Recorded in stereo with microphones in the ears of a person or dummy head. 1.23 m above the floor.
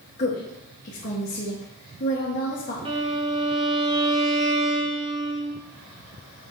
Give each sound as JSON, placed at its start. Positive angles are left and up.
{"t": 0.2, "sound": "a woman speaking", "side_deg": 45, "distance_m": 1.7}
{"t": 2.9, "sound": "a violin", "side_deg": -30, "distance_m": 1.8}